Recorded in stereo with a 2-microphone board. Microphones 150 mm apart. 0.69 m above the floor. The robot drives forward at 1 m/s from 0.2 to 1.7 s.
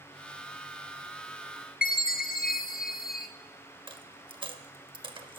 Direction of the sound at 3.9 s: 35° right (ahead or behind).